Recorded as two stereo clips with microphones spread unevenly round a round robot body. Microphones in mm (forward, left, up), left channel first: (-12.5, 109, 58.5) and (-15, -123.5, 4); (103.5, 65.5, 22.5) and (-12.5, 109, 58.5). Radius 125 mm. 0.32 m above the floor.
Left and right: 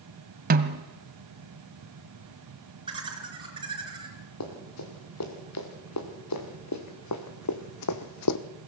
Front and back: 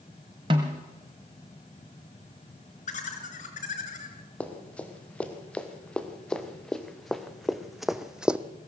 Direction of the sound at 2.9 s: 25° right.